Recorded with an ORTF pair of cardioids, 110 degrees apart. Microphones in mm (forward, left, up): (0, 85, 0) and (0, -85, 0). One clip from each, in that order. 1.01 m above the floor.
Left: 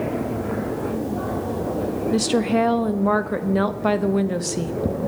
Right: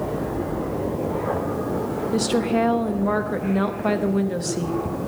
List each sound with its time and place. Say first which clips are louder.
2.1 s a woman speaking: left 1 dB; 25° left, 0.8 m